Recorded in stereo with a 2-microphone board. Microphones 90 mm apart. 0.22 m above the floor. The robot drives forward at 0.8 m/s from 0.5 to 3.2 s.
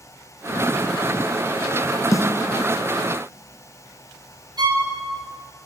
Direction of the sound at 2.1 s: 35° left (ahead or behind).